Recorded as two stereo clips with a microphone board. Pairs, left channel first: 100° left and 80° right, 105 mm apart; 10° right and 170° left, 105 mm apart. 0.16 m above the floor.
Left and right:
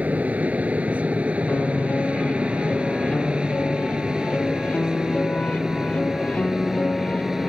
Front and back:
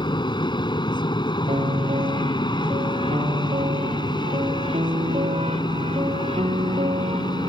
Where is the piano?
175° left.